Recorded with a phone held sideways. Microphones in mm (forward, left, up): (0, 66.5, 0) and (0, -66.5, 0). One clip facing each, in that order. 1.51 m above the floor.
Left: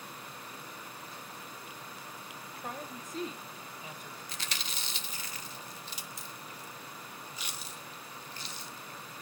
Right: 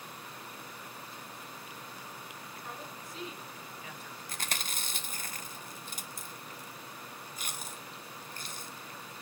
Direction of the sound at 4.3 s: 50° right (ahead or behind).